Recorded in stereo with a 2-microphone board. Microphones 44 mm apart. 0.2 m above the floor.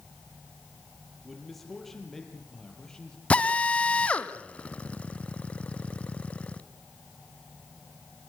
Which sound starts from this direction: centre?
A man speaking, at 1.2 s.